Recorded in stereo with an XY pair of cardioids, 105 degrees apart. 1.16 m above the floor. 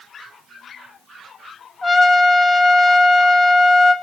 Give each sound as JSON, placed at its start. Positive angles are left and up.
{"t": 1.8, "sound": "a trumpet", "azimuth_deg": 40, "distance_m": 2.5}